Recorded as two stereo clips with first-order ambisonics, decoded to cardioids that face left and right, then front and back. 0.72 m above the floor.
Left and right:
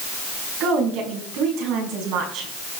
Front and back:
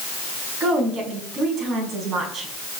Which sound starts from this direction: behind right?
A woman speaking, at 0.6 s.